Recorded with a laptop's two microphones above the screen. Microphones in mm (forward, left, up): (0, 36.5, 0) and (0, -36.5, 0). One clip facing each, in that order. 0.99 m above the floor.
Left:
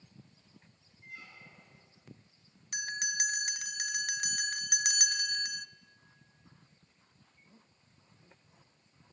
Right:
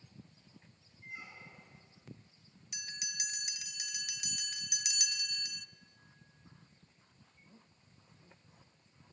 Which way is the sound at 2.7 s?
50° left (ahead or behind).